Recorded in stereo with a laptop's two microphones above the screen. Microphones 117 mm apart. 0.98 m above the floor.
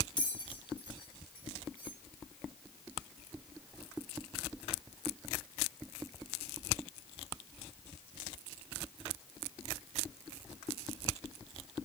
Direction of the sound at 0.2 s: 40° left (ahead or behind).